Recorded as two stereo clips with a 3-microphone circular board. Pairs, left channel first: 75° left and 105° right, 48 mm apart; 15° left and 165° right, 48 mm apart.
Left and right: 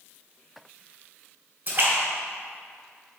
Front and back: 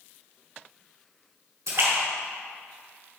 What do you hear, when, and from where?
1.7 s a splash: 160° right, 2 m